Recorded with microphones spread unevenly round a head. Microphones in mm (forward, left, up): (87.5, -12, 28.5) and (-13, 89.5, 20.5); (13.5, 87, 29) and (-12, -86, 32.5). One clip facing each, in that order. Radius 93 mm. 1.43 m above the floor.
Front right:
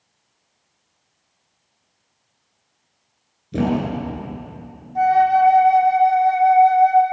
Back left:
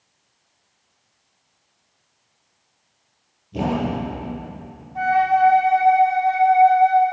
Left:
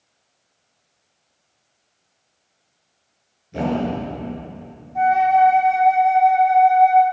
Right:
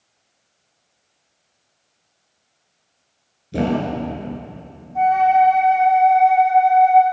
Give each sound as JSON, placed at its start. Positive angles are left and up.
{"t": 3.5, "sound": "a thud", "azimuth_deg": -50, "distance_m": 7.5}
{"t": 5.0, "sound": "a flute", "azimuth_deg": 0, "distance_m": 3.5}